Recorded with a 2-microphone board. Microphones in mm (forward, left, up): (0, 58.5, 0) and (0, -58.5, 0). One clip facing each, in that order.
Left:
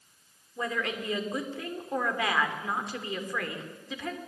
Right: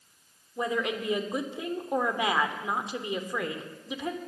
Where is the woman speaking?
20° right (ahead or behind), 3 m.